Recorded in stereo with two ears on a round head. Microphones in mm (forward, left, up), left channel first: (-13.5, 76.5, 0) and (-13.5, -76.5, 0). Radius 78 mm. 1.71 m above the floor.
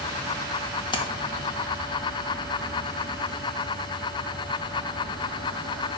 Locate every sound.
0.9 s a splash: 30° left (ahead or behind), 1.5 m